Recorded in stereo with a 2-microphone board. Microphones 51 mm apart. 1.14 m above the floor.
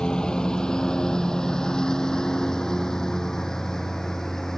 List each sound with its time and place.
0.0 s a lawn mower: 15° left (ahead or behind); by 4.6 s 10° left (ahead or behind)